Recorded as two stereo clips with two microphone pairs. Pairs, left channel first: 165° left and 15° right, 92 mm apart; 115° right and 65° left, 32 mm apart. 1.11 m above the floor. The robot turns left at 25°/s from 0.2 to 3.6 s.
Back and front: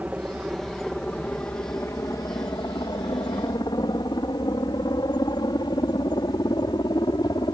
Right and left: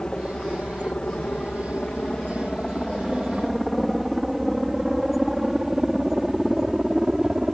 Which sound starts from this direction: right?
A helicopter, at 0.0 s.